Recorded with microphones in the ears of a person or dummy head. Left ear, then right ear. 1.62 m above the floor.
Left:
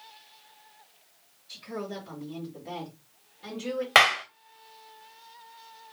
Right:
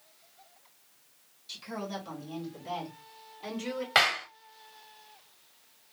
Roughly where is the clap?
Left.